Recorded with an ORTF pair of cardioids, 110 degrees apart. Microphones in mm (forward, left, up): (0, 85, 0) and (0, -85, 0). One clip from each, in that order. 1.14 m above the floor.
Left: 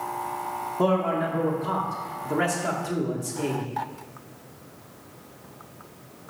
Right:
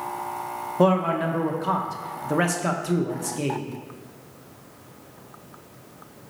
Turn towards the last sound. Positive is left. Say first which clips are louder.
# right 3 dB
turn(degrees=-20)